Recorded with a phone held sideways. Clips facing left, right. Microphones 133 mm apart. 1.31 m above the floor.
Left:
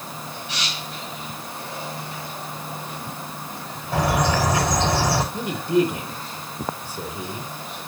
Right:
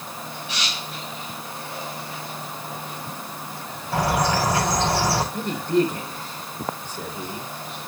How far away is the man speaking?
About 3.5 m.